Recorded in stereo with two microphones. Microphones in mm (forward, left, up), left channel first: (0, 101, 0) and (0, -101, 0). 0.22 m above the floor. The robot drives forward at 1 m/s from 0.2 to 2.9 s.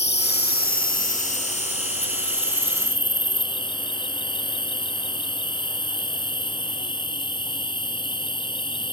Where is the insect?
55° left (ahead or behind); by 8.9 s 20° left (ahead or behind).